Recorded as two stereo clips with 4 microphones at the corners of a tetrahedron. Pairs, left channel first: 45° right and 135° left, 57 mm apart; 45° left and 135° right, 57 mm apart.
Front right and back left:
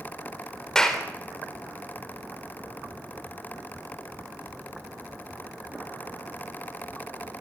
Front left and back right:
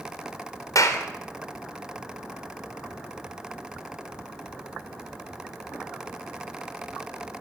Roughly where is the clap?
Ahead left.